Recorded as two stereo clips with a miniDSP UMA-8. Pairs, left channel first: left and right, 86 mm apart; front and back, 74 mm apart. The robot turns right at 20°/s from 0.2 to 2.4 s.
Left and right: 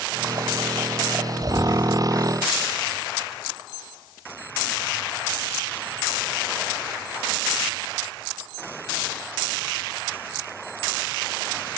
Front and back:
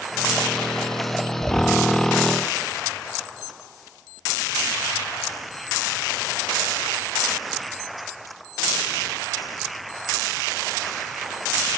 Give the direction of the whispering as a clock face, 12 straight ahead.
3 o'clock.